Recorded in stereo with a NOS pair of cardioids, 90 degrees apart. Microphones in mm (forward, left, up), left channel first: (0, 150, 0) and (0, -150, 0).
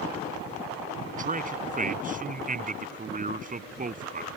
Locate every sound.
1.1 s a man speaking: 25° right